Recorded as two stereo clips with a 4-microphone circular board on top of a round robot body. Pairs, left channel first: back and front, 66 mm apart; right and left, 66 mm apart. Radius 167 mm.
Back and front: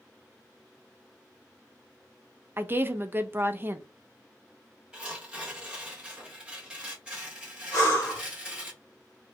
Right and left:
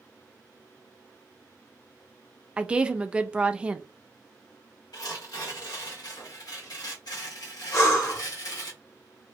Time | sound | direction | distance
2.6 | a woman speaking | 25° left | 0.7 m
4.9 | tearing paper | 75° right | 1.7 m
7.7 | breathing | 135° right | 1.5 m